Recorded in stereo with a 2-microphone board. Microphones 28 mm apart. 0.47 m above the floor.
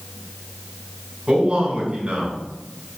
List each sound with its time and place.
1.3 s a man speaking: 35° right (ahead or behind), 4.5 m